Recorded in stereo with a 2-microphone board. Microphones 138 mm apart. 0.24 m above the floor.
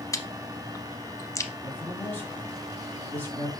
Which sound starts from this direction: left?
Chewing, at 0.1 s.